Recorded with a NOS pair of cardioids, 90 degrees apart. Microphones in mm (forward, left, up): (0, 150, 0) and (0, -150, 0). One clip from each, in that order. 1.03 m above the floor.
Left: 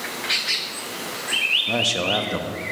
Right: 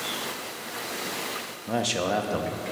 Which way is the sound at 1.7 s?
5° left.